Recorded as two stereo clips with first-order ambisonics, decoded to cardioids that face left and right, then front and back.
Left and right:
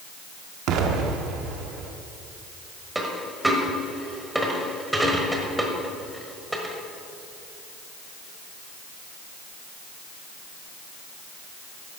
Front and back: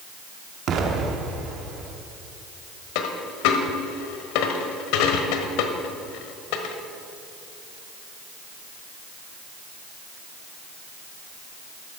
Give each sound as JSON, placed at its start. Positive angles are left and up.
{"t": 0.7, "sound": "an explosion", "azimuth_deg": -125, "distance_m": 1.1}
{"t": 3.0, "sound": "a dropped coin", "azimuth_deg": -5, "distance_m": 1.3}